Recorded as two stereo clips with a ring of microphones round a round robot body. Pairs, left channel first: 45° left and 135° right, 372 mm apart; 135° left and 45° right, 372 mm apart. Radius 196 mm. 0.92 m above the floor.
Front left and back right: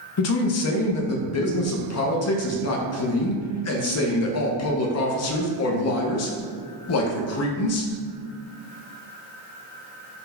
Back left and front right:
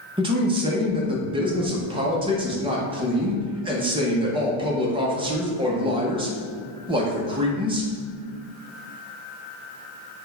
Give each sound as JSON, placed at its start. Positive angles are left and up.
{"t": 0.2, "sound": "a man speaking", "azimuth_deg": 25, "distance_m": 0.7}